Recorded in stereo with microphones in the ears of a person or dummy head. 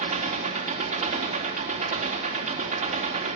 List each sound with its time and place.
0.0 s an engine running: 40° right (ahead or behind), 4 m